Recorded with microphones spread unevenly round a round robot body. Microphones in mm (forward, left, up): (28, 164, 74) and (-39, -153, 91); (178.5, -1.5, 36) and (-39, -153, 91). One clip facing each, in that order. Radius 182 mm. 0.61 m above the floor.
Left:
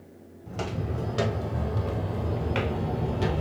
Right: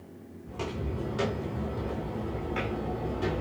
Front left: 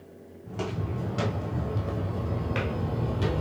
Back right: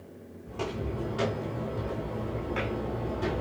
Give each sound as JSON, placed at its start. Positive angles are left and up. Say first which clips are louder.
{"t": 0.5, "sound": "footsteps", "louder": "left 2 dB, even", "azimuth_deg": 90, "distance_m": 2.5}